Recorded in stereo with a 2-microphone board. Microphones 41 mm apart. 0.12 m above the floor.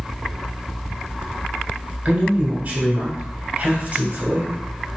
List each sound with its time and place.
2.0 s a man speaking: 35° right (ahead or behind), 1.3 m